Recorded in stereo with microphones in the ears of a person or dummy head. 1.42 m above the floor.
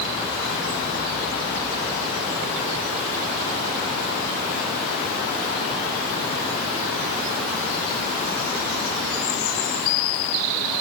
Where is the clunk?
I don't hear a clunk.